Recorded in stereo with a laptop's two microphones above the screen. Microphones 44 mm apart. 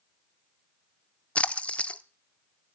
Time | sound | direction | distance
1.4 | a splash | 30° left (ahead or behind) | 0.5 m